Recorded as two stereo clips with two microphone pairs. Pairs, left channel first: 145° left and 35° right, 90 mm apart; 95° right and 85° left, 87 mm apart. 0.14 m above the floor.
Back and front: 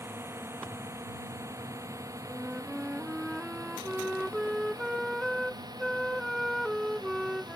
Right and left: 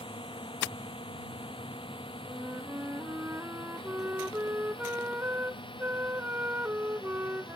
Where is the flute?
60° left.